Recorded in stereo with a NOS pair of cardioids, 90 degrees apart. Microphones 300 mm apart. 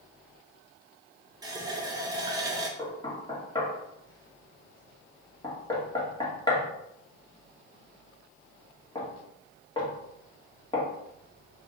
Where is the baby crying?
No baby crying in this recording.